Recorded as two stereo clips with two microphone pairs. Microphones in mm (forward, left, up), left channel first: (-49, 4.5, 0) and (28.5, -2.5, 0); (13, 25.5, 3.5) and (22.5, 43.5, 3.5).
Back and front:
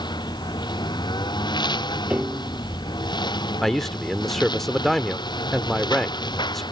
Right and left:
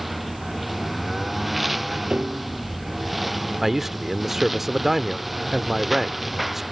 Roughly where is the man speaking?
Left.